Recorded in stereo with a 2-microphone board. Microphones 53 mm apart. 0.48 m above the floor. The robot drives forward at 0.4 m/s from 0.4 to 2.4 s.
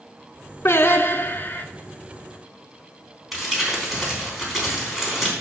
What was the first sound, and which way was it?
Singing, 55° left (ahead or behind).